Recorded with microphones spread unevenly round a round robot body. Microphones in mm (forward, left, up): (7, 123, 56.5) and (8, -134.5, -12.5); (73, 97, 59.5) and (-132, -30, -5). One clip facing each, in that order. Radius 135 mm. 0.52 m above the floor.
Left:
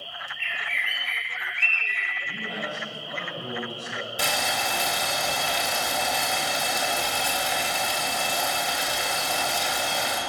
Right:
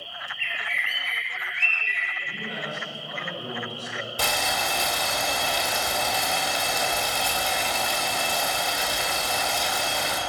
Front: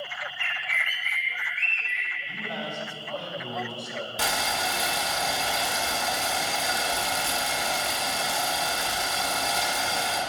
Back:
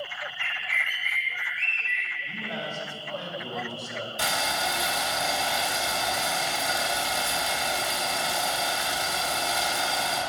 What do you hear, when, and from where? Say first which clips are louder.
0.4 s a bird: right 1 dB, front 1 dB; 5° left, 2 m
2.2 s a man speaking: left 1 dB, even; 135° left, 3.5 m
4.2 s boiling: right 1 dB, even; 5° left, 2.5 m